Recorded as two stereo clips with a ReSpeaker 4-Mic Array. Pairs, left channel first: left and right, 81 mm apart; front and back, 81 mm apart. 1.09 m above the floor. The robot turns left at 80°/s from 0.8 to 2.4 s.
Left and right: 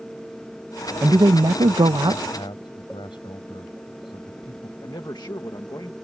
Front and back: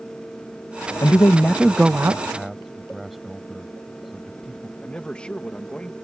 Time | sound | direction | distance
1.0 | a man speaking | 35° right | ?
2.3 | a man speaking | 95° left | ?
4.8 | a man speaking | 75° left | ?